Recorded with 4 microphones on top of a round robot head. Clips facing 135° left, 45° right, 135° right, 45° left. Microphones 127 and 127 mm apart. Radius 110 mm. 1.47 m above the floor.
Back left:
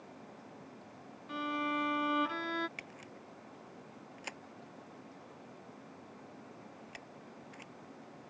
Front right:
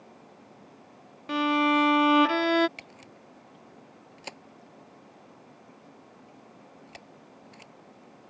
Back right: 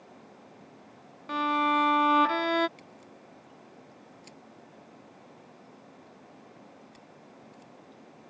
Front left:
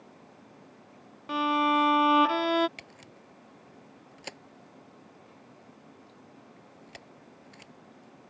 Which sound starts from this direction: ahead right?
A violin, at 1.3 s.